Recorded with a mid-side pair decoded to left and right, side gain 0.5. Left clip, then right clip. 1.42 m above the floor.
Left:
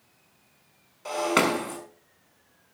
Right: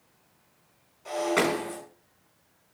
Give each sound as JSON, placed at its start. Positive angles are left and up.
{"t": 1.1, "sound": "breaking glass", "azimuth_deg": 55, "distance_m": 6.5}